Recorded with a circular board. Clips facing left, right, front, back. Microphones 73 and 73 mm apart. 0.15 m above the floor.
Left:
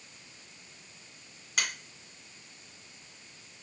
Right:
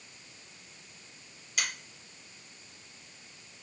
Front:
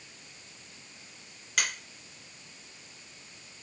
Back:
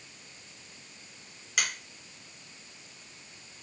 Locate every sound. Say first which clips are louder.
1.6 s a finger snap: left 2 dB, even; 90° left, 2 m